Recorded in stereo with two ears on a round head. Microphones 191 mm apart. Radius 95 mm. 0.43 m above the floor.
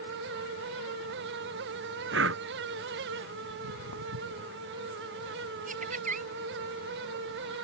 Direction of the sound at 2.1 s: 60° right (ahead or behind).